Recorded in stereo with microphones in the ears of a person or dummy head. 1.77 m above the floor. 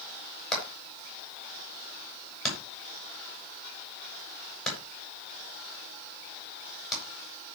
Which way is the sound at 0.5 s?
Centre (ahead or behind).